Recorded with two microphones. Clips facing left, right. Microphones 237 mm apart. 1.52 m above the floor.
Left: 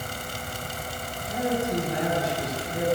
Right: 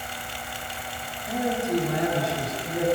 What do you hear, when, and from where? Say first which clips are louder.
1.3 s a man speaking: right 1 dB; 85° right, 5 m